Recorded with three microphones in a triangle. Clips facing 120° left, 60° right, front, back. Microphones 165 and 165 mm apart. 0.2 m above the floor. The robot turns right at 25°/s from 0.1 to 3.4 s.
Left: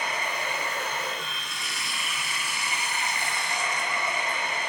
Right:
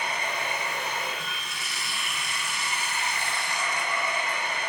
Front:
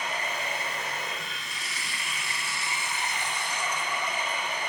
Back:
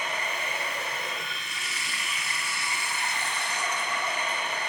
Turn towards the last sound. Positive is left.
turn(degrees=70)